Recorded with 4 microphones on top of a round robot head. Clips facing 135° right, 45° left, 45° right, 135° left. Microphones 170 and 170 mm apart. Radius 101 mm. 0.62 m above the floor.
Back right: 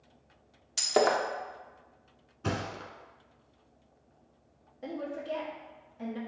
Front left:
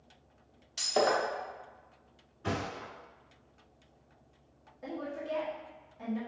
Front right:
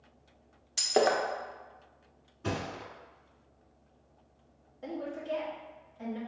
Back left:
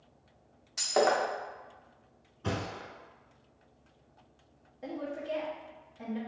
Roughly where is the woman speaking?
Behind right.